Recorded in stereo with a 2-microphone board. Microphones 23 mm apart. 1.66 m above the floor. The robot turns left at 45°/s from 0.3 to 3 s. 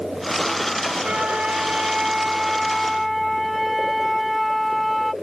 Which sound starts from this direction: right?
A flute, at 1.0 s.